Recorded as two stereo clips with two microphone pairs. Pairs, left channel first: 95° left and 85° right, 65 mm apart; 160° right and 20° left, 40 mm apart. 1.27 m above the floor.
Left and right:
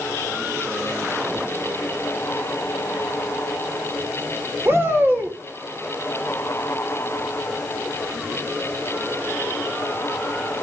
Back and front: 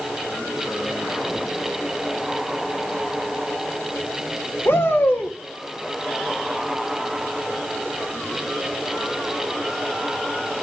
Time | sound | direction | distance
4.7 | a shout | 140° right | 4 m